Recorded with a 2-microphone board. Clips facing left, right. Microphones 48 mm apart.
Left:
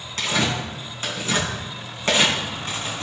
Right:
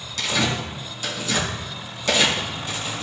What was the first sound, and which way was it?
Tearing paper, 40° left (ahead or behind).